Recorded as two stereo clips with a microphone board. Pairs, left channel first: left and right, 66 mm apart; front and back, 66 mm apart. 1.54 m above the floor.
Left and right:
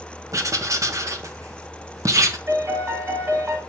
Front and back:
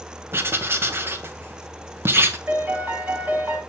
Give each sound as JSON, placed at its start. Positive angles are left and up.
{"t": 0.3, "sound": "writing", "azimuth_deg": -125, "distance_m": 1.3}
{"t": 2.5, "sound": "a piano", "azimuth_deg": -120, "distance_m": 2.0}